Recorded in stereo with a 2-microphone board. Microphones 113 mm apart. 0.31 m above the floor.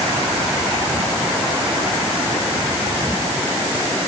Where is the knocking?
I don't hear knocking.